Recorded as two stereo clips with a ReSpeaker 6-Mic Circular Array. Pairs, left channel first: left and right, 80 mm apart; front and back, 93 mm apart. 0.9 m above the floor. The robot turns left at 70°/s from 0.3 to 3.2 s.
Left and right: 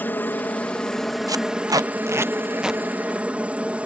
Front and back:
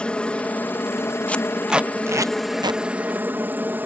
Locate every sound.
0.0 s a helicopter: 60° left; by 3.9 s 140° right
1.3 s tape being pulled: 70° right; by 2.8 s 175° right